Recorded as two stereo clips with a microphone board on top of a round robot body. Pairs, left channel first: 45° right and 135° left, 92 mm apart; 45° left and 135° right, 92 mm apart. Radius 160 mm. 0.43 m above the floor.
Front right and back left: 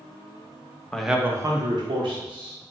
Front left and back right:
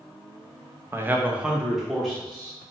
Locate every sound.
0.9 s a man speaking: 115° right, 0.8 m; by 2.5 s 130° left, 1.7 m